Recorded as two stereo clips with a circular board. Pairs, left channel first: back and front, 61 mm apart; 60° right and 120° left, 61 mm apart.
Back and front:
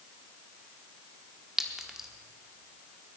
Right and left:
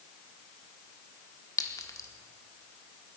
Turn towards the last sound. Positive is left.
turn(degrees=-80)